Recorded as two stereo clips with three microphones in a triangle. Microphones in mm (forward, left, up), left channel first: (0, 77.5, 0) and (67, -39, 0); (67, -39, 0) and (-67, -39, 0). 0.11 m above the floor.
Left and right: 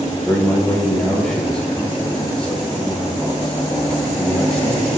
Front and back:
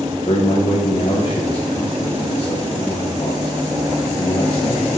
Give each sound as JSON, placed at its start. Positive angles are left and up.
{"t": 0.2, "sound": "a man speaking", "azimuth_deg": 35, "distance_m": 5.5}